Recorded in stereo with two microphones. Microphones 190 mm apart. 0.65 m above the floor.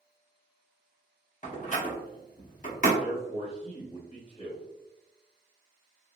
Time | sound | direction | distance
1.4 | a door slam | 40° left (ahead or behind) | 0.8 m
3.0 | a man speaking | 40° left (ahead or behind) | 1.7 m